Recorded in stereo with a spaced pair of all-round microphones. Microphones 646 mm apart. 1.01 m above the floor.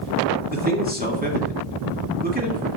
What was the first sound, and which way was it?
A man speaking, 15° right (ahead or behind).